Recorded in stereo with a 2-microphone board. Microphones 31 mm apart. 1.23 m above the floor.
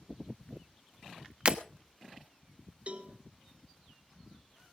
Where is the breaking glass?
35° right (ahead or behind), 1.2 m.